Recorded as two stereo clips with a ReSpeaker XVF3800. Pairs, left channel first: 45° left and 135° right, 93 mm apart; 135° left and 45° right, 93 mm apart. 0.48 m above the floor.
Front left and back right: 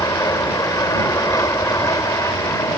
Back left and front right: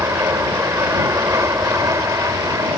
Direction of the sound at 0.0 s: 5° left.